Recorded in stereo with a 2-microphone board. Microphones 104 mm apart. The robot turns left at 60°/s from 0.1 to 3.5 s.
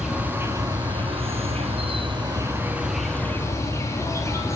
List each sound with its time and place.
0.0 s an insect: 5° right, 1.9 m; by 4.6 s 150° left, 1.9 m